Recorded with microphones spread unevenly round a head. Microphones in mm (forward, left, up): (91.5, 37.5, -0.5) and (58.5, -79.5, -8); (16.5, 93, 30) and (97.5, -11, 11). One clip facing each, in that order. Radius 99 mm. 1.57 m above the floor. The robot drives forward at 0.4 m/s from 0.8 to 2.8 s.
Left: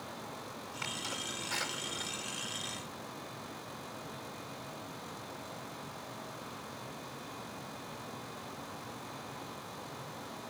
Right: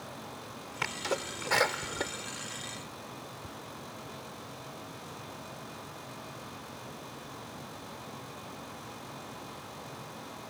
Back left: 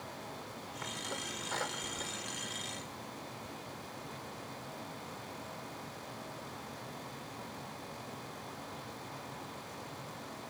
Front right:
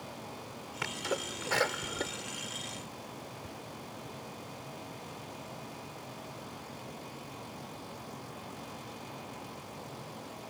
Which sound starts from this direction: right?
A sneeze, at 0.8 s.